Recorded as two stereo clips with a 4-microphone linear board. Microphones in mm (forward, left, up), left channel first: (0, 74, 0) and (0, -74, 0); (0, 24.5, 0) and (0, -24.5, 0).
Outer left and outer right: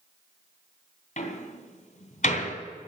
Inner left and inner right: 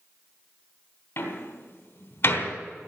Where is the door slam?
60° left (ahead or behind), 2.5 m.